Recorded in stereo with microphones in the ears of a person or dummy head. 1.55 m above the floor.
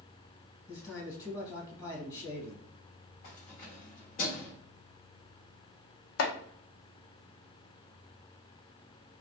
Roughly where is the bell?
No bell in this recording.